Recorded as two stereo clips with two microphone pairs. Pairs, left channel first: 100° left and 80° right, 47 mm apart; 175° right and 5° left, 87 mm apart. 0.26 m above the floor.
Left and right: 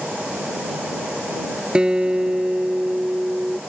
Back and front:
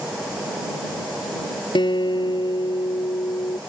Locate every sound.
1.8 s a guitar: 150° right